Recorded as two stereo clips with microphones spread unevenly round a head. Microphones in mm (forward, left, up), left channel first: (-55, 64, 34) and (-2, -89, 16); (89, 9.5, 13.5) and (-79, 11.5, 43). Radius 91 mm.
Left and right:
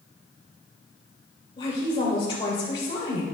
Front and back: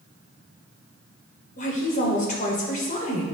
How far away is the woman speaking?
About 3.5 m.